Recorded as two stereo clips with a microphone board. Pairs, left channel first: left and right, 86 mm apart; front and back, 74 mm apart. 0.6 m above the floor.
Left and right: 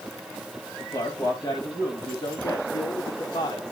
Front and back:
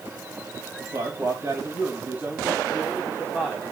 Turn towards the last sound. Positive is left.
turn(degrees=95)